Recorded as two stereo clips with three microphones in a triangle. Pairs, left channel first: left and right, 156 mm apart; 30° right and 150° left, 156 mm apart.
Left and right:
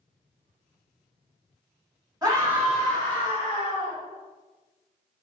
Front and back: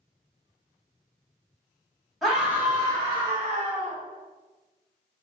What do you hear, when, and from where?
2.2 s a scream: 120° right, 1.6 m; by 4.0 s 120° left, 2 m